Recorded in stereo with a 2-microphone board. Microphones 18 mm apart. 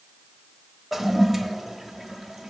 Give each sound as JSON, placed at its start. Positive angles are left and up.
{"t": 0.9, "sound": "a toilet flushing", "side_deg": -10, "distance_m": 1.2}